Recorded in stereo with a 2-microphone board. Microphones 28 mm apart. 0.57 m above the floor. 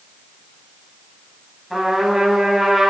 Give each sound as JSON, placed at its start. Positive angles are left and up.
{"t": 1.7, "sound": "a trumpet", "side_deg": 0, "distance_m": 4.5}